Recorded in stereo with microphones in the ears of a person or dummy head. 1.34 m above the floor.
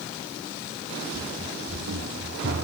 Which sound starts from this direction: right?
Running footsteps, at 1.1 s.